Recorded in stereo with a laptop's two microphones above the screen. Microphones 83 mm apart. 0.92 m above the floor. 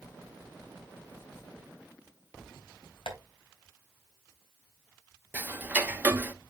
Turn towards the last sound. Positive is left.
turn(degrees=-20)  # may be behind; listen again after turning